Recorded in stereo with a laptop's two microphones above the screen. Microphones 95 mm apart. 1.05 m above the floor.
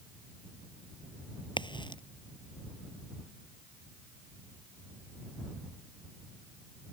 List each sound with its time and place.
1.6 s a crack: 55° left (ahead or behind)